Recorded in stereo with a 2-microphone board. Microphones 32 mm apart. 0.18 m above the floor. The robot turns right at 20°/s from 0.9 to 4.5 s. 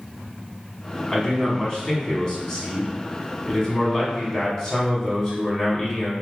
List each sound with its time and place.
1.1 s a man speaking: 80° left, 1.2 m; by 6.1 s 145° left, 1.2 m